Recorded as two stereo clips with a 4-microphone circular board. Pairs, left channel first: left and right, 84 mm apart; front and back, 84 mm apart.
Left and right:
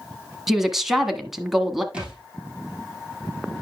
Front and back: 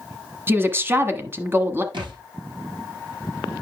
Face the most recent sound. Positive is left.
turn(degrees=-170)